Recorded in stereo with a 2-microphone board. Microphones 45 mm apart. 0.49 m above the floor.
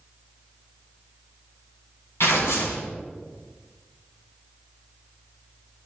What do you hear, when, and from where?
2.2 s tearing paper: 75° left (ahead or behind), 2.5 m